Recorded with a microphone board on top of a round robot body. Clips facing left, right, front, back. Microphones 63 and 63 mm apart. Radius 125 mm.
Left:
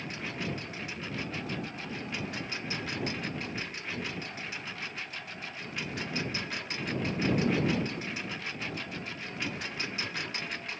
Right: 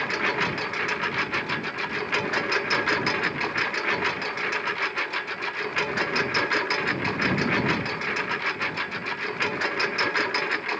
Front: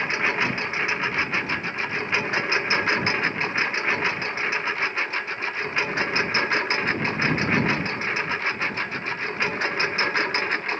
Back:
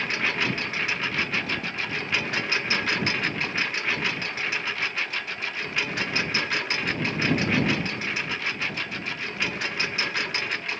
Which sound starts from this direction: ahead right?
A lawn mower, at 0.0 s.